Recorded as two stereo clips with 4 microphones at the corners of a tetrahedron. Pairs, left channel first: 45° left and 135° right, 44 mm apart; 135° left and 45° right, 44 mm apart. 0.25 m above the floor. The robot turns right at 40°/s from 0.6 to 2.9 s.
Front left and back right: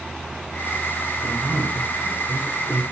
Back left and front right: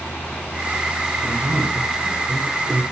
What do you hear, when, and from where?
1.2 s a man speaking: 75° right, 4 m; by 2.8 s 10° right, 4 m